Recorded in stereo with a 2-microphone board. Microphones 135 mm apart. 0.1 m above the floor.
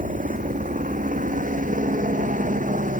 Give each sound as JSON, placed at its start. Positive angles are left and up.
{"t": 0.0, "sound": "a helicopter", "side_deg": -75}